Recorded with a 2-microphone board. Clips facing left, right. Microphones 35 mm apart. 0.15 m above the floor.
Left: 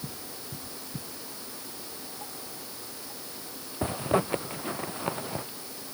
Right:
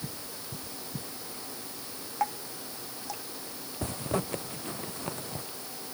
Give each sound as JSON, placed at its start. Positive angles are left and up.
{"t": 2.2, "sound": "dripping", "side_deg": -80}
{"t": 3.8, "sound": "a zipper", "side_deg": 25}